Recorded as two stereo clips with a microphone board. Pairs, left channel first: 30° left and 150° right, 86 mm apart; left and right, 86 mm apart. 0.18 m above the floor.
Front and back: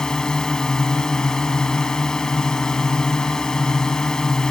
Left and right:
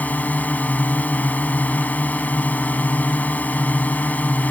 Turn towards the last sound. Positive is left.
turn(degrees=100)